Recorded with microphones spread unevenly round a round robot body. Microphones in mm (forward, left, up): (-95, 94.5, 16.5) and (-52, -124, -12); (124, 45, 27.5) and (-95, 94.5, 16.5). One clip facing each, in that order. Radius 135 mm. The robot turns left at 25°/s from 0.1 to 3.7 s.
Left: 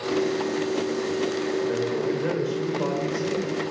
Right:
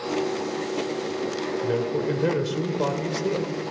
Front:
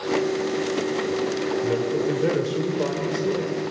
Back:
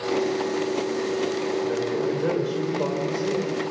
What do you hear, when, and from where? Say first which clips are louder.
1.6 s a man speaking: even, front 2 dB; 50° right, 2.0 m; by 3.5 s 100° right, 2.0 m